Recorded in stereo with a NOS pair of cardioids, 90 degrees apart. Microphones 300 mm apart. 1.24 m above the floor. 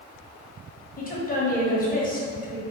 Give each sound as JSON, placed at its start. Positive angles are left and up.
{"t": 1.0, "sound": "a woman speaking", "azimuth_deg": 30, "distance_m": 1.1}